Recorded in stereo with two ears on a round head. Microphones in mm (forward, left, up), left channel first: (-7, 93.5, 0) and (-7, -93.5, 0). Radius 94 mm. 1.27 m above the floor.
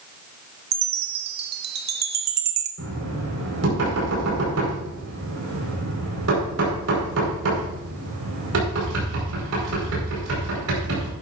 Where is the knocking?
80° right, 5 m.